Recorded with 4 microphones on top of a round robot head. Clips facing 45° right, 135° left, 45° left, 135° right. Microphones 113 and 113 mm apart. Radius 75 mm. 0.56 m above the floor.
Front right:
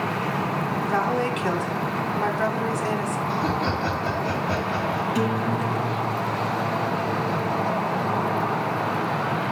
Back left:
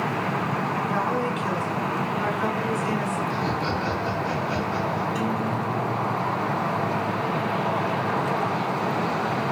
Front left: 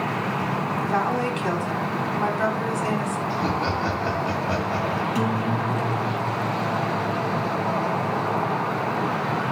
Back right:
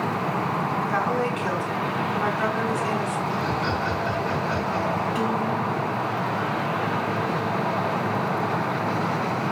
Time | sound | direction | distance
0.8 | a woman speaking | 20° right | 3.5 m
3.3 | laughter | 5° right | 7 m
5.2 | a guitar | 10° right | 2.5 m